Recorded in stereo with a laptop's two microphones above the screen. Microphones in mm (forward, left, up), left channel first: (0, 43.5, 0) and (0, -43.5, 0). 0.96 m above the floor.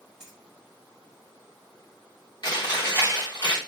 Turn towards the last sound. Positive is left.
turn(degrees=55)  # may be behind; listen again after turning